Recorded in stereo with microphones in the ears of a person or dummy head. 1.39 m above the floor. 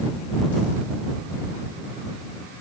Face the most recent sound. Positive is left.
No sound to turn to.